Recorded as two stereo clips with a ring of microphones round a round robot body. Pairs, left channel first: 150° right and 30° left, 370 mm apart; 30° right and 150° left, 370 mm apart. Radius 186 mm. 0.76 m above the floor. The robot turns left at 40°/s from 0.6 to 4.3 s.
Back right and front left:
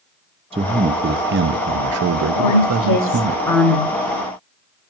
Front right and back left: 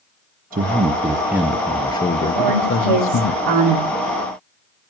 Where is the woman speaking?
170° left, 3 m; by 3.9 s 110° left, 3 m.